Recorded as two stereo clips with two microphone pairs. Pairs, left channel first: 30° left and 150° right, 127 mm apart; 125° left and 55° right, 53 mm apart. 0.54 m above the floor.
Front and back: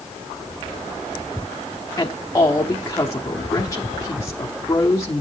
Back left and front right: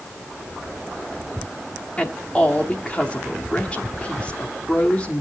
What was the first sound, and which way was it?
A woman speaking, 75° left.